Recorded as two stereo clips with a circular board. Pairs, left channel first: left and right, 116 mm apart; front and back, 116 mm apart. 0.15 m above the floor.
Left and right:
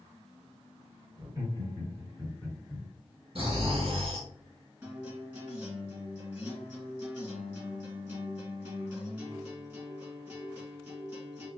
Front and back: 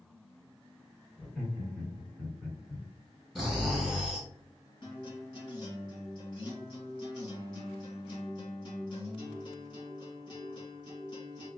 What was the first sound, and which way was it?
Laughter, 85° right.